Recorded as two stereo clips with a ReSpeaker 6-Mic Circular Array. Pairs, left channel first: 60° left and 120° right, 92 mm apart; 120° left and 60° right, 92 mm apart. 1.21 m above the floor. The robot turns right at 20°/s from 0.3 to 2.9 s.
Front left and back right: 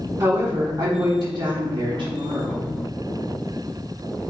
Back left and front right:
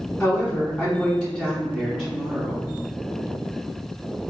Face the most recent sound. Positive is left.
turn(degrees=-115)